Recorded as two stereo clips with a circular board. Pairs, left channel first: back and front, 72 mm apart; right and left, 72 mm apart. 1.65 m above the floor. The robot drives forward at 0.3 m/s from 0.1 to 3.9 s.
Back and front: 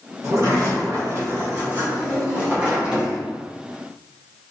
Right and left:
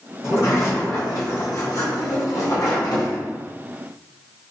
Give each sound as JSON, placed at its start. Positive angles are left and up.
{"t": 0.2, "sound": "a sliding door", "azimuth_deg": -45, "distance_m": 1.5}